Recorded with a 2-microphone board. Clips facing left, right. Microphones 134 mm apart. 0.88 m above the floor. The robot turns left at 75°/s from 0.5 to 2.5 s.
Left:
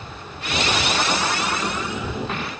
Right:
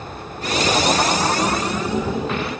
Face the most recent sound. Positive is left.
No sound to turn to.